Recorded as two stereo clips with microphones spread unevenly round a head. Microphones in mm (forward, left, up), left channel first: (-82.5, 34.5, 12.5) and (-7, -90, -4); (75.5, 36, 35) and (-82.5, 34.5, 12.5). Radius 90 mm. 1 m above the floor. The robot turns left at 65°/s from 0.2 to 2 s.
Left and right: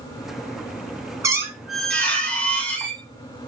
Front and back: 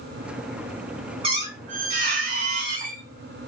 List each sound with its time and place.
1.2 s a squeak: 120° right, 0.8 m; by 3.0 s 170° right, 0.8 m